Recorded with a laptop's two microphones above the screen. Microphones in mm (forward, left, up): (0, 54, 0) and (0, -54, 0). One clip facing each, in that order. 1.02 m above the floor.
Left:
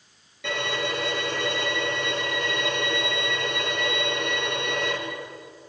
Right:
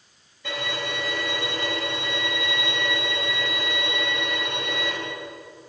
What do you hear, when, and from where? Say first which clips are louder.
0.4 s a violin: left 2 dB; 85° left, 8 m